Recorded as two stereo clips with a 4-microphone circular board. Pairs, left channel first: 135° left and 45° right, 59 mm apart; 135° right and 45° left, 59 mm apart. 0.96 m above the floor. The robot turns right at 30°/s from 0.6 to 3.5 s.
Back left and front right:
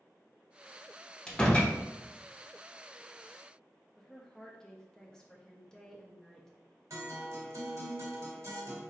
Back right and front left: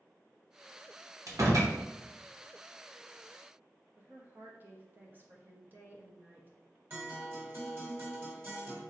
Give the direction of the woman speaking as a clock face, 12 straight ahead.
10 o'clock.